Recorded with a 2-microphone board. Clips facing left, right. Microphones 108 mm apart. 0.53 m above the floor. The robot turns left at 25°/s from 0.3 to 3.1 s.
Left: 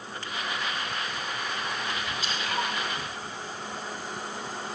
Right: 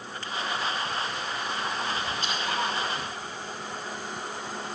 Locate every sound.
2.2 s dripping: 55° right (ahead or behind), 3.5 m; by 2.6 s 45° right (ahead or behind), 3.5 m